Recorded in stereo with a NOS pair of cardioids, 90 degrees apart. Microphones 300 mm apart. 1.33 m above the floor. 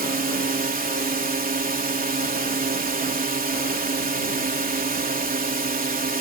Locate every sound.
0.0 s a drone: 25° right